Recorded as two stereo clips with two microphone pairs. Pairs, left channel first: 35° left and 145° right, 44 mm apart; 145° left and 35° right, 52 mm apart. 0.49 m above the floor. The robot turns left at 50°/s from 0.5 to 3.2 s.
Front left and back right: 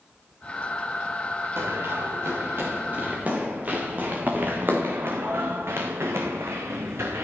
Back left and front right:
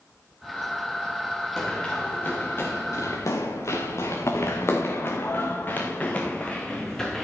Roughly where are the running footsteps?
Behind right.